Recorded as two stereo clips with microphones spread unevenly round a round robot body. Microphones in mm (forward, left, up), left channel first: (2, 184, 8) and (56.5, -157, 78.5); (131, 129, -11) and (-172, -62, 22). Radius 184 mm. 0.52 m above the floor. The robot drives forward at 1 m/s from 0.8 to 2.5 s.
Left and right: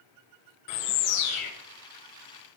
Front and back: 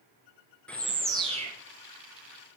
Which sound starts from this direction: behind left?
A bird, at 0.7 s.